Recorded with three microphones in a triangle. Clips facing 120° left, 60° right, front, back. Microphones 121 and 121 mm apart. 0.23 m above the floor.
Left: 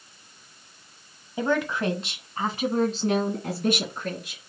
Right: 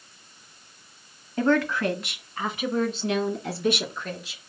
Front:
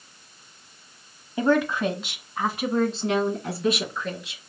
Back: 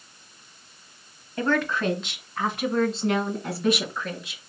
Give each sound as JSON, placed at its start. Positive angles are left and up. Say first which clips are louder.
{"t": 1.4, "sound": "a woman speaking", "louder": "right 3 dB, front 3 dB", "azimuth_deg": 50, "distance_m": 1.2}